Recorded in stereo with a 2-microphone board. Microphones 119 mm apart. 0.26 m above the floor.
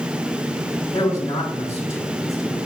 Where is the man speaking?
30° left (ahead or behind), 1.5 m.